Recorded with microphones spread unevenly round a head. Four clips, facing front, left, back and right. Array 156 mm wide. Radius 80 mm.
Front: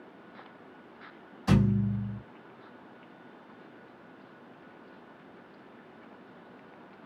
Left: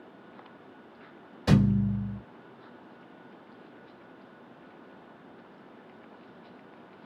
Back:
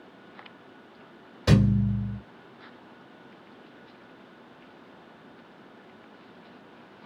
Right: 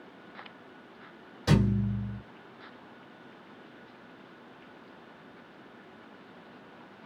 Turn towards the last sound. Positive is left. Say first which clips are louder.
# left 3 dB, back 3 dB
turn(degrees=170)